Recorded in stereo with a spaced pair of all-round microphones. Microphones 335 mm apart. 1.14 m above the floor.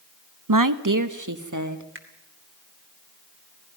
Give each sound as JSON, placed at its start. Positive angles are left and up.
{"t": 0.5, "sound": "a woman speaking", "side_deg": -70, "distance_m": 0.9}
{"t": 1.9, "sound": "a finger snap", "side_deg": -35, "distance_m": 2.5}